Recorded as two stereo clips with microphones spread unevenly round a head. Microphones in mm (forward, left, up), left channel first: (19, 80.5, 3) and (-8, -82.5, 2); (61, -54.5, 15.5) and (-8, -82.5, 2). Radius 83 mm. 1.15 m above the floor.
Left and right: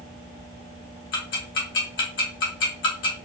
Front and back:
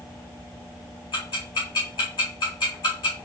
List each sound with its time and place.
1.1 s ticking: 75° left, 1.7 m